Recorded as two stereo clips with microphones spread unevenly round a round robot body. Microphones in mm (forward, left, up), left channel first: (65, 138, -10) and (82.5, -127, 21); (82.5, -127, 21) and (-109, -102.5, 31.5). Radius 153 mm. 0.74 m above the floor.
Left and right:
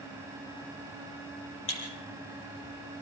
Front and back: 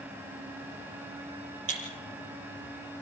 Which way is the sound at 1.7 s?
150° left.